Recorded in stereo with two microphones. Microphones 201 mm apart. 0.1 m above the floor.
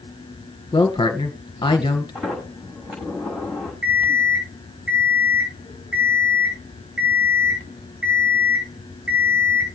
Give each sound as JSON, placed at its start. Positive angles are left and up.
{"t": 0.7, "sound": "a woman speaking", "side_deg": 25, "distance_m": 1.5}
{"t": 2.1, "sound": "a sliding door", "side_deg": 0, "distance_m": 5.5}
{"t": 3.8, "sound": "an alarm clock", "side_deg": -80, "distance_m": 7.5}